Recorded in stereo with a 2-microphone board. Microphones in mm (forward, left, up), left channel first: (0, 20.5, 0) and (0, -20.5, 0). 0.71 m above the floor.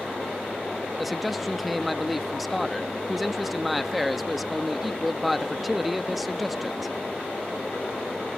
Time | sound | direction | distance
1.0 | a man speaking | centre (ahead or behind) | 0.5 m